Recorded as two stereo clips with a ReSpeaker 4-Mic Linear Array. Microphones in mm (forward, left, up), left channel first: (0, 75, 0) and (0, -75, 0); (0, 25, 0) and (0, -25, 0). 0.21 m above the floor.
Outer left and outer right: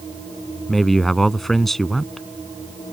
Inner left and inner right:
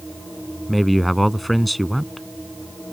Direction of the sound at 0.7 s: Centre (ahead or behind).